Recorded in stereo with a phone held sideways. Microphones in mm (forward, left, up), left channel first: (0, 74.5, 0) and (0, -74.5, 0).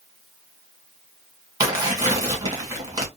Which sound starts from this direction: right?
Tearing paper, at 1.6 s.